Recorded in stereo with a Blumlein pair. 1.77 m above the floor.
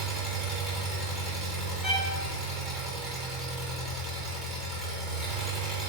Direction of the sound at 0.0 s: 10° right.